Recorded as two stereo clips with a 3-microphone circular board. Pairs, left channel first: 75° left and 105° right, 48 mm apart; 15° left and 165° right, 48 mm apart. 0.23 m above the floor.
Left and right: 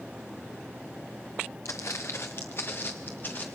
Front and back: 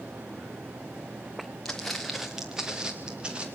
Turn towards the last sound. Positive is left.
turn(degrees=125)